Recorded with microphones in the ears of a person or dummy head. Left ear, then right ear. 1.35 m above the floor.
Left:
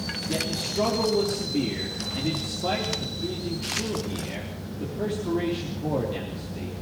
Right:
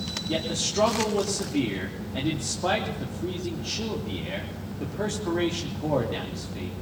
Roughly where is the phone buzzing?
I don't hear a phone buzzing.